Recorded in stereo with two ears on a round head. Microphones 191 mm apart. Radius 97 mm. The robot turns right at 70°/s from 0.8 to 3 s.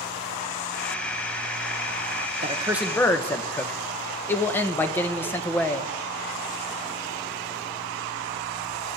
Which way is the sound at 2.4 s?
30° right.